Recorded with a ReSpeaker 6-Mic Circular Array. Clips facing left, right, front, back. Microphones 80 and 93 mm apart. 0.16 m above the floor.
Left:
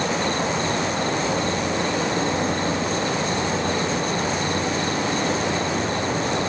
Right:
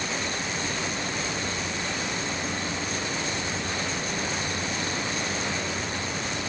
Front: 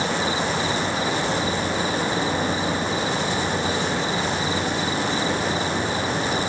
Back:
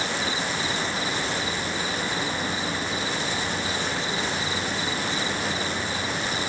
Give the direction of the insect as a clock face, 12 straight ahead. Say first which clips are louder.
Left 8 dB, front 5 dB; 10 o'clock.